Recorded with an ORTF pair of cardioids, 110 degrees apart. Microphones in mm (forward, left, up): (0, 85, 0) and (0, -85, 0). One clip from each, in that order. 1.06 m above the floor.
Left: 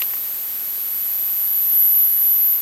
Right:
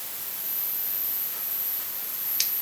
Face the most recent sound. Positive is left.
No sound to turn to.